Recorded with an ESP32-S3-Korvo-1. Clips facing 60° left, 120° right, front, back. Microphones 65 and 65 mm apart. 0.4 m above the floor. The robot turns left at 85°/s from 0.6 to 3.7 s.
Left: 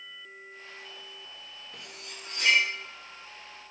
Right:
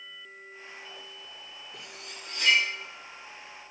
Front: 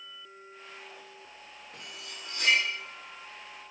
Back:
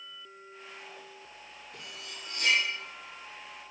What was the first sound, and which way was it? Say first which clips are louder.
Cutlery clinking: right 1 dB, even; 50° left.